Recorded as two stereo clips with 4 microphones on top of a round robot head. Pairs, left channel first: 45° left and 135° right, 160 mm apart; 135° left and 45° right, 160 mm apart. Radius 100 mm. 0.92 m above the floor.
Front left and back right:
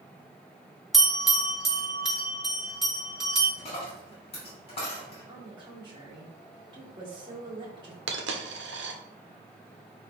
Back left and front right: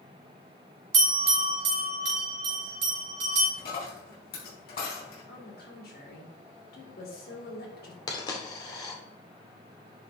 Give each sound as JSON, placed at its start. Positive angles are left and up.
{"t": 0.9, "sound": "a bell", "azimuth_deg": -45, "distance_m": 3.0}
{"t": 3.6, "sound": "a dropped coin", "azimuth_deg": 105, "distance_m": 3.5}
{"t": 5.3, "sound": "a woman speaking", "azimuth_deg": 160, "distance_m": 2.0}
{"t": 8.1, "sound": "a dropped coin", "azimuth_deg": -155, "distance_m": 0.9}